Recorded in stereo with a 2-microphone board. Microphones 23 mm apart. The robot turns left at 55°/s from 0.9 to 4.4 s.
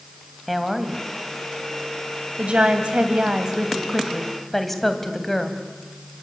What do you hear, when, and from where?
0.5 s a woman speaking: centre (ahead or behind), 3 m; by 5.5 s 10° left (ahead or behind), 3 m